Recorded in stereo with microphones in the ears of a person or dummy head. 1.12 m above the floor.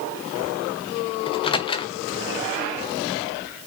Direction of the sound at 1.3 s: 20° left (ahead or behind).